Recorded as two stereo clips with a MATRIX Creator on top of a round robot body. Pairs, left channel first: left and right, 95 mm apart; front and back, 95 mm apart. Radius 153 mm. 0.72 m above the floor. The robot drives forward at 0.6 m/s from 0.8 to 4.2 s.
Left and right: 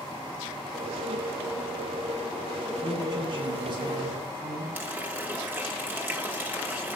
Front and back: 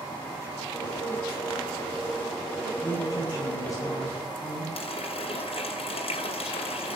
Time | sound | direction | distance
2.8 | a woman speaking | 50° right | 8 m
4.8 | a running tap | 20° right | 3 m